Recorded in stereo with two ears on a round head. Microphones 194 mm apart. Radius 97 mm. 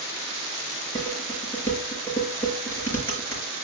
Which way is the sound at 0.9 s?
10° left (ahead or behind).